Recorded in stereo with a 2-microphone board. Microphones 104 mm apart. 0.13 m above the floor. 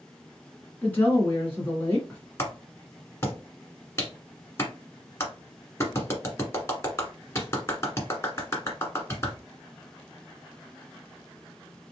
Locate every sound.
0.8 s a woman speaking: 20° left (ahead or behind), 1.3 m
2.4 s a clap: 25° left (ahead or behind), 1.4 m